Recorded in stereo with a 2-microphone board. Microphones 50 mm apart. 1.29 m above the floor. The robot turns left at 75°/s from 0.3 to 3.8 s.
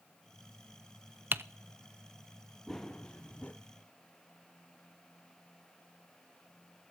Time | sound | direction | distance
1.3 | typing on a keyboard | 45° right (ahead or behind) | 0.7 m
2.7 | running footsteps | 170° left | 1.5 m